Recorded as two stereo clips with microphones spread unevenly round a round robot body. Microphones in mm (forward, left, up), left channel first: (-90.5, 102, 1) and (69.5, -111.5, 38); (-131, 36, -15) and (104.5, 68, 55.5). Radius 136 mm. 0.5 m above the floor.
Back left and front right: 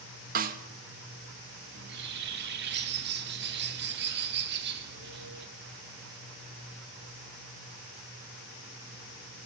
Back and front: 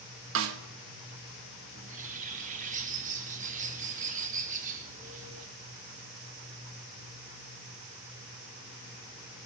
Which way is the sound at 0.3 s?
5° right.